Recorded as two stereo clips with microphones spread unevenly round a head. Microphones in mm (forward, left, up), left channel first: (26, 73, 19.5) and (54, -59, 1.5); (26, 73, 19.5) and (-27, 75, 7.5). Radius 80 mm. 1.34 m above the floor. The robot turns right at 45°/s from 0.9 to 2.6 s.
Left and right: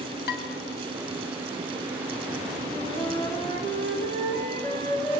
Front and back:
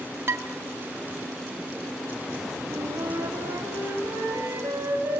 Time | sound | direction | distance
0.3 | dishes clattering | 130° left | 1.8 m
2.7 | a flute | 165° left | 4 m